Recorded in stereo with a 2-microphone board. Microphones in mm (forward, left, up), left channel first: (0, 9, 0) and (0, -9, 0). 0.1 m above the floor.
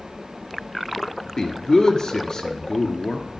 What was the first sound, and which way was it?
A man speaking, 35° left (ahead or behind).